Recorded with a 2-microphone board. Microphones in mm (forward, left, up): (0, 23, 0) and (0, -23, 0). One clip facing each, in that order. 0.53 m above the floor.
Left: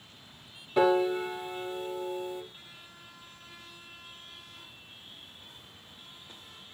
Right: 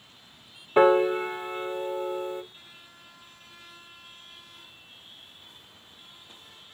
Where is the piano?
40° right (ahead or behind), 0.8 m.